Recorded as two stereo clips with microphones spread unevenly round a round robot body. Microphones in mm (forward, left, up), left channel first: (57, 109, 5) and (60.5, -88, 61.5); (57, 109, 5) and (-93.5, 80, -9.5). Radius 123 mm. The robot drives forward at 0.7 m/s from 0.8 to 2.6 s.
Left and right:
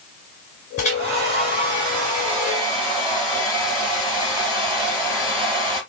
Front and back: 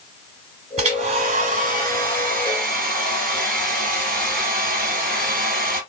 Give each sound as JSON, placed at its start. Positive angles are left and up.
{"t": 0.8, "sound": "a hair dryer", "azimuth_deg": 160, "distance_m": 0.9}